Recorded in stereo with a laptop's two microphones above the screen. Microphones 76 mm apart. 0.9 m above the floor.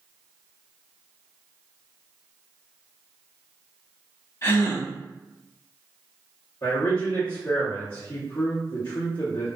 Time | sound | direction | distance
4.4 | a gasp | 45° left (ahead or behind) | 1.4 m
6.6 | a man speaking | 55° left (ahead or behind) | 0.9 m